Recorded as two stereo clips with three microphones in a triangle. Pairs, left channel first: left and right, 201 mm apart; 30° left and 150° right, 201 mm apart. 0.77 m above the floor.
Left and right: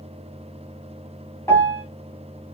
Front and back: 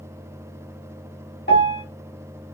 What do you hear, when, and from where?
1.5 s a piano: 15° left, 1.8 m